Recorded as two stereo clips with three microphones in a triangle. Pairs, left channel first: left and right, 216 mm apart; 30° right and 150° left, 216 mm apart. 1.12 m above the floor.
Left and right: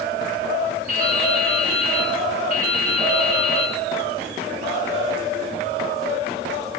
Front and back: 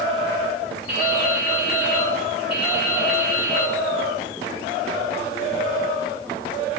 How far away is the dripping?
About 4.5 m.